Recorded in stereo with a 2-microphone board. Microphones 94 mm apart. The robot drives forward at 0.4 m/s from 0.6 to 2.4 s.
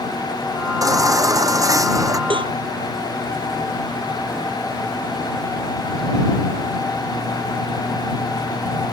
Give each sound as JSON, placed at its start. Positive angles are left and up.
{"t": 0.8, "sound": "a baby crying", "side_deg": -40}
{"t": 2.3, "sound": "a cowbell", "side_deg": -60}